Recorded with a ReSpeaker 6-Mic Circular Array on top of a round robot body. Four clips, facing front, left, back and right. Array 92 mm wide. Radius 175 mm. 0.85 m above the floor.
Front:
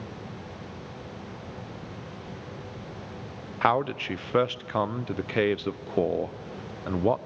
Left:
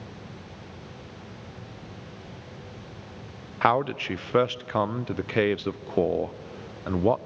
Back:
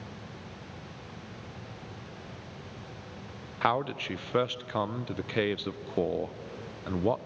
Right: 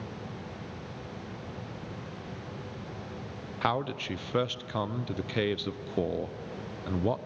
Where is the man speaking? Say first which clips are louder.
Left 7 dB, front 4 dB; 65° left, 0.6 m.